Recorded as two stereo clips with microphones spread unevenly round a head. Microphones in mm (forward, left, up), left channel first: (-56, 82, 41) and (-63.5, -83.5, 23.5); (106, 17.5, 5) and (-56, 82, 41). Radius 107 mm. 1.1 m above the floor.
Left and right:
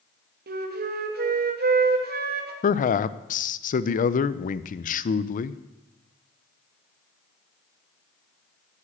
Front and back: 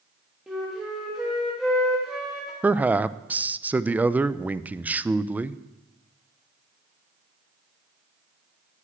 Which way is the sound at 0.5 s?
110° right.